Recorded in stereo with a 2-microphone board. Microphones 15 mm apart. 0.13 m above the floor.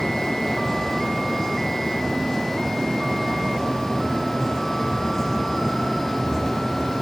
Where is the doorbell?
No doorbell in this recording.